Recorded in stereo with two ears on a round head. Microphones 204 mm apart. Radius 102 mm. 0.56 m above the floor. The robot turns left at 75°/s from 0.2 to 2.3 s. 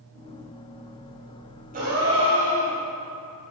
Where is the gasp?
40° right, 4 m; by 2.8 s 80° right, 4 m.